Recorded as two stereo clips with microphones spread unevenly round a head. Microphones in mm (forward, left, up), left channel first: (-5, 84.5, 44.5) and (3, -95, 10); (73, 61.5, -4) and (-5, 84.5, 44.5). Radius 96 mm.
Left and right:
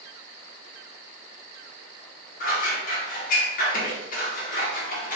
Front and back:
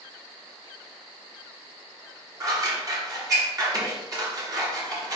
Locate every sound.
2.4 s scissors: 135° left, 1.4 m